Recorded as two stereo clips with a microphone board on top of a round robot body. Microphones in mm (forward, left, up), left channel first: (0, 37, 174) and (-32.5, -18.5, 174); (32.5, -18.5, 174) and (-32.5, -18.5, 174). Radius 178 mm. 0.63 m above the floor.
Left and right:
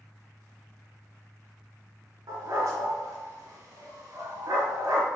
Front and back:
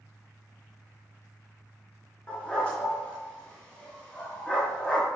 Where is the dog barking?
75° right, 2.5 m.